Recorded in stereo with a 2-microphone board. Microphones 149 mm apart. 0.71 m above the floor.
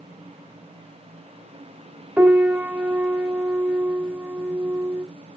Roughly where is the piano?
Centre.